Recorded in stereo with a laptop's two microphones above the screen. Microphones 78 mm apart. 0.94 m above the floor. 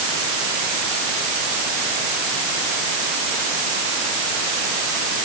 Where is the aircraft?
I don't hear an aircraft.